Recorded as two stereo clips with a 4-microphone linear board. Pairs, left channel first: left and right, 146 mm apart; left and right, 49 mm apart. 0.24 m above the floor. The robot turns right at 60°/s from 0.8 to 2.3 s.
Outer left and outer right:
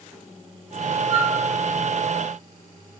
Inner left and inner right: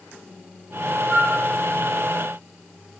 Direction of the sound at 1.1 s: 45° right (ahead or behind).